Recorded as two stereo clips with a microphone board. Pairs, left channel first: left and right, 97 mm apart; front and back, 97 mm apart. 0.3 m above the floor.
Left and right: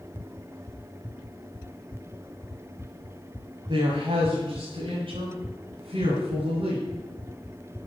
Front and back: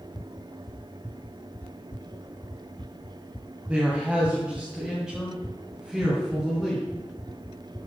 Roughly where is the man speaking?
Right.